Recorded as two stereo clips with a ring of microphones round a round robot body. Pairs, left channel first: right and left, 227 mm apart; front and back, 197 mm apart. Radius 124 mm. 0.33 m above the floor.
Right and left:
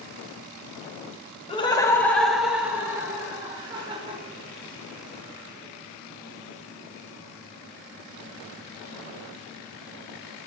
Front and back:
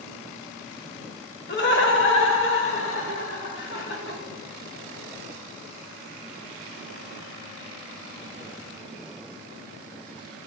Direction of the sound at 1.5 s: 25° right.